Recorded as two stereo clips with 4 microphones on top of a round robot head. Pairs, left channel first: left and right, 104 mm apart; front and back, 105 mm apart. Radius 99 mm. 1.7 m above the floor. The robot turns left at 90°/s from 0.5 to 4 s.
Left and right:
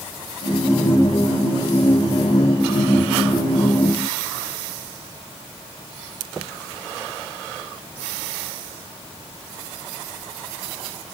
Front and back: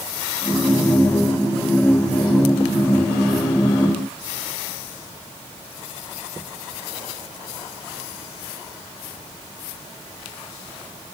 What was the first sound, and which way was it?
Only background noise.